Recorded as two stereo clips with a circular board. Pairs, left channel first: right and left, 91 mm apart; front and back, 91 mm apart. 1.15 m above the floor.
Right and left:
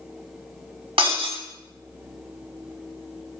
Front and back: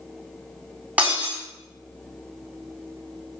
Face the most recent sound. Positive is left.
turn(degrees=105)